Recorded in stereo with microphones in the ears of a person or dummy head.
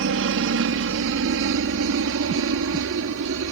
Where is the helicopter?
65° right (ahead or behind); by 3.5 s 70° right (ahead or behind).